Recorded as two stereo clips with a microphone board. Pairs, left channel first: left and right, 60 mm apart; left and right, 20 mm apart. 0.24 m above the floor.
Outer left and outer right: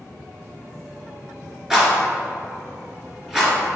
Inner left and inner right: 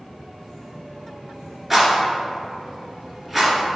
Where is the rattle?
10° right (ahead or behind), 2 m.